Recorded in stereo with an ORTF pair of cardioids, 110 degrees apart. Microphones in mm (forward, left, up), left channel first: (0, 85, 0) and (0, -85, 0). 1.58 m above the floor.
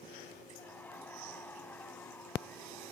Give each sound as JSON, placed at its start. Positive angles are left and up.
{"t": 0.6, "sound": "laughter", "azimuth_deg": 10}